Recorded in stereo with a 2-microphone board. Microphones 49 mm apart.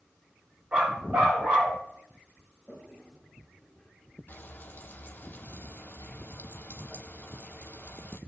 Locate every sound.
0.7 s a dog barking: 45° right (ahead or behind), 5 m
2.7 s a toilet flushing: 15° right (ahead or behind), 5.5 m
4.3 s frying: 45° left (ahead or behind), 1.4 m